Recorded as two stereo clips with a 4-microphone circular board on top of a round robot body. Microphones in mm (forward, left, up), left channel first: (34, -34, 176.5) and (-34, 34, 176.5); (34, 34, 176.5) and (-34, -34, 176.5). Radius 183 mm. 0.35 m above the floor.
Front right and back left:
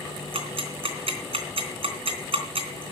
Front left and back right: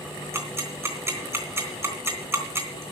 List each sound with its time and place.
0.3 s ticking: 160° left, 3.5 m